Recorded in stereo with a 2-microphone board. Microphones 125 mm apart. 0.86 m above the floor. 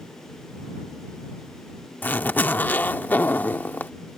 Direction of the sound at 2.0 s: 15° left (ahead or behind).